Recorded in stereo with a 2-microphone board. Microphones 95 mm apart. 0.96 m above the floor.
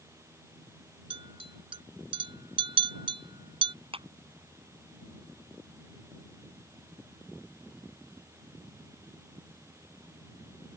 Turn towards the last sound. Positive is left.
turn(degrees=-75)  # may be behind; listen again after turning